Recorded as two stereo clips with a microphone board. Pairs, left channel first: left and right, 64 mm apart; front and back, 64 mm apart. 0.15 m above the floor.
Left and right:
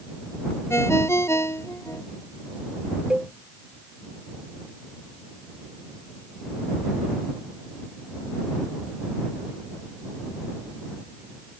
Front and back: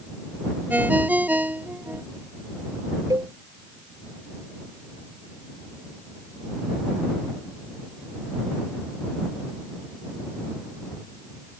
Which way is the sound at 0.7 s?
125° left.